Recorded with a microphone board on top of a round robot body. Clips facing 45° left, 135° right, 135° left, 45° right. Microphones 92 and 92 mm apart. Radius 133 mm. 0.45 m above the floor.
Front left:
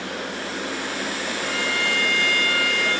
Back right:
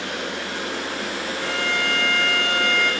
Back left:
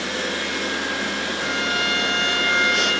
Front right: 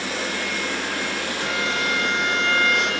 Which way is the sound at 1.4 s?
145° right.